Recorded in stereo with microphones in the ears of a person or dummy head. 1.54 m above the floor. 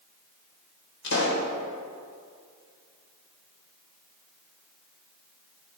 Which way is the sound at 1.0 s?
60° left (ahead or behind).